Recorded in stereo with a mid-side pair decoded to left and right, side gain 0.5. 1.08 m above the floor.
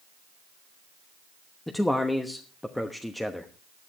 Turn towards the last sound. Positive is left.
turn(degrees=10)